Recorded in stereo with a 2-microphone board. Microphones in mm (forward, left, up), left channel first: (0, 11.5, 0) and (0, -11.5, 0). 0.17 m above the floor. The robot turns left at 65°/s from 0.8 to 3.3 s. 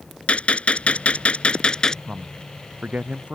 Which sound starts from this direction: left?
A gunshot, at 0.3 s.